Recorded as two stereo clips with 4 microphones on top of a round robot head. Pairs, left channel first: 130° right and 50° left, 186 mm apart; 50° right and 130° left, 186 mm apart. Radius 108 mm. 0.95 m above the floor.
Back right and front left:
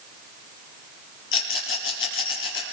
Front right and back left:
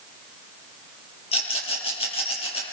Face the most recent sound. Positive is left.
turn(degrees=-110)